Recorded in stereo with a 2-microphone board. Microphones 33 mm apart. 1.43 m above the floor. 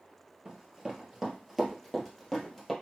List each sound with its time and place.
0.5 s running footsteps: 20° right (ahead or behind), 1.5 m; by 2.7 s 5° left (ahead or behind), 2 m